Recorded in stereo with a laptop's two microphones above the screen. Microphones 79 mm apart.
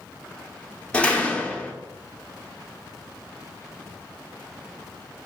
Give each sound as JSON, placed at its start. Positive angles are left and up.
{"t": 0.9, "sound": "a door slam", "side_deg": 15, "distance_m": 0.6}